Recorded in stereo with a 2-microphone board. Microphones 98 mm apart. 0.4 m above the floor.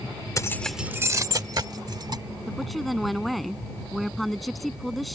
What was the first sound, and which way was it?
Keys jangling, 35° left (ahead or behind).